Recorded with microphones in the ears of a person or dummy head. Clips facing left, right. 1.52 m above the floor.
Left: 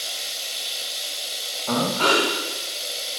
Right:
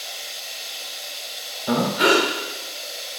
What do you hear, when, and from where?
0.0 s running water: 40° left (ahead or behind), 1.8 m
1.7 s breathing: 20° right (ahead or behind), 1.9 m